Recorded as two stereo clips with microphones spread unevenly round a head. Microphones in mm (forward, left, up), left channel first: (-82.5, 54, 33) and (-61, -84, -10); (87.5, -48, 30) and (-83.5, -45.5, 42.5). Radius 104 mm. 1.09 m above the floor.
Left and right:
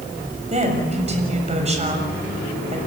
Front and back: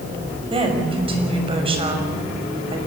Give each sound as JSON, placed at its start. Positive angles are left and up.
{"t": 0.5, "sound": "a woman speaking", "azimuth_deg": -125, "distance_m": 6.5}